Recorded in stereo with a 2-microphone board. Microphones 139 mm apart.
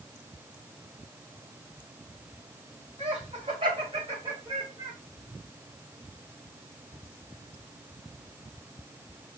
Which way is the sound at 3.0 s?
50° right (ahead or behind).